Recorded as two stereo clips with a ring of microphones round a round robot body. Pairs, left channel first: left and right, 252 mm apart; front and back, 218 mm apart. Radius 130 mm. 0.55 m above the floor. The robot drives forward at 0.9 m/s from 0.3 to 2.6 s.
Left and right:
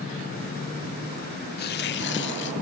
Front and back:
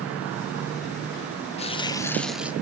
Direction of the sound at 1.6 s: 50° left.